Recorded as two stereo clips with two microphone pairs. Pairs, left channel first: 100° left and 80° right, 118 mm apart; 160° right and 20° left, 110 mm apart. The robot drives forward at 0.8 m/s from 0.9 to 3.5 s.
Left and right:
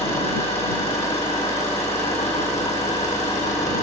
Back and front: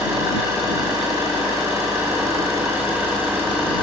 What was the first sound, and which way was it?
An engine running, 75° left.